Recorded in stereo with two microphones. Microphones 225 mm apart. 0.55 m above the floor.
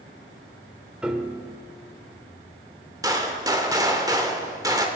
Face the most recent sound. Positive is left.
turn(degrees=-15)  # may be behind; listen again after turning